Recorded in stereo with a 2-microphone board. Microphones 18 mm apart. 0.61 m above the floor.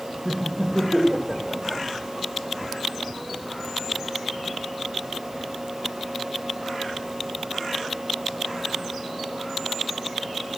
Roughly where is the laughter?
Left.